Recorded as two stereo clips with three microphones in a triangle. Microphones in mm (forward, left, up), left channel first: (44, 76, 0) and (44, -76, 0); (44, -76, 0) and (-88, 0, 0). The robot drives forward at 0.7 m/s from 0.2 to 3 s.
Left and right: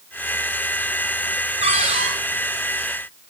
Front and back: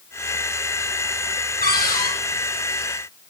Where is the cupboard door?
45° right, 6 m.